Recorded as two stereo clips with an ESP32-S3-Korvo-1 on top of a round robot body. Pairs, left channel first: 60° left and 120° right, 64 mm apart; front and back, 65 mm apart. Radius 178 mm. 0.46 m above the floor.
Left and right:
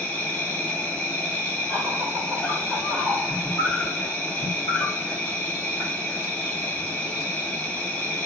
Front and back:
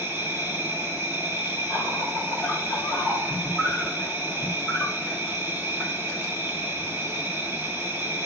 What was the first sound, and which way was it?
An insect, 125° left.